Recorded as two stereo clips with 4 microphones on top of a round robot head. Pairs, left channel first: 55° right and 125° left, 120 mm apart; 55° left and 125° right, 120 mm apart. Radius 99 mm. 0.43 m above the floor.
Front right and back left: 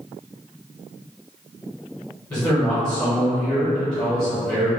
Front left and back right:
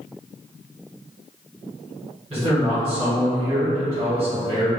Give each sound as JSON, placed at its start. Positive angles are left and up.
{"t": 2.3, "sound": "a man speaking", "azimuth_deg": -105, "distance_m": 1.7}